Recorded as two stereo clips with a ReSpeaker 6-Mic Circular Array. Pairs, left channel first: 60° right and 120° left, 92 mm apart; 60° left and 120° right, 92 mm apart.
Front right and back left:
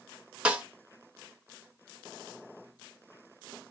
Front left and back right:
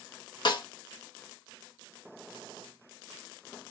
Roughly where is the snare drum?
Ahead left.